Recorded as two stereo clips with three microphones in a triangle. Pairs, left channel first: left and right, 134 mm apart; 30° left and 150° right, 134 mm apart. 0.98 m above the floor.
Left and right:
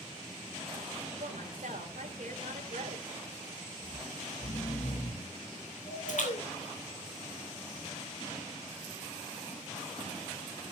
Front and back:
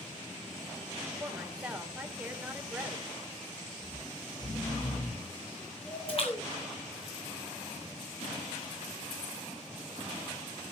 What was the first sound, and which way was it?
A woman speaking, 70° right.